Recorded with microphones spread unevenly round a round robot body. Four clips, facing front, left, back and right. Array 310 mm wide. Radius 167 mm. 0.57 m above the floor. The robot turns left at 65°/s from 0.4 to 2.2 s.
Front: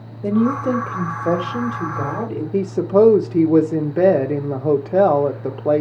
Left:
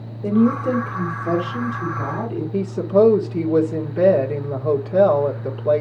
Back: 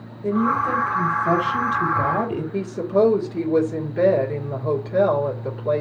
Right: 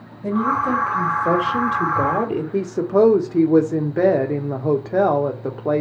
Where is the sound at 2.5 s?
30° right, 1.8 m.